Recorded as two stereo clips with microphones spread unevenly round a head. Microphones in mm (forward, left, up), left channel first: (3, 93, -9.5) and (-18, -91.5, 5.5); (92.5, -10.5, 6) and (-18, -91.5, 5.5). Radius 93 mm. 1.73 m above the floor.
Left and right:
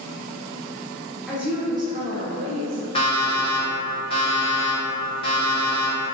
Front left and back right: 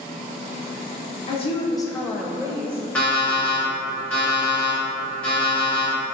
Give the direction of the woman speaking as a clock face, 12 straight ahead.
12 o'clock.